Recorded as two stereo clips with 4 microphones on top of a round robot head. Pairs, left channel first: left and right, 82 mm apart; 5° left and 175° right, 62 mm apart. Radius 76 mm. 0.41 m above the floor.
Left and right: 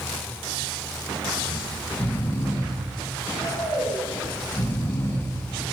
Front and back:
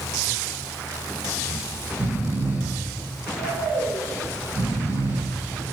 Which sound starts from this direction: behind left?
Snoring, at 1.4 s.